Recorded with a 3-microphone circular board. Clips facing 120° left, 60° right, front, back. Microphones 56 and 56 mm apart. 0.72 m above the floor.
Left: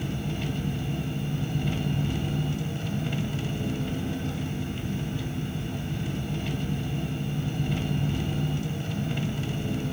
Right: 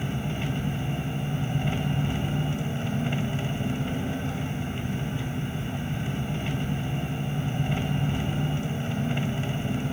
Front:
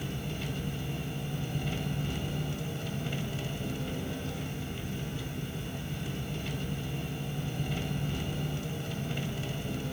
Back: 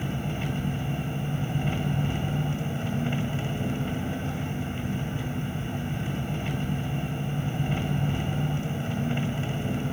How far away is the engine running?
About 1.6 m.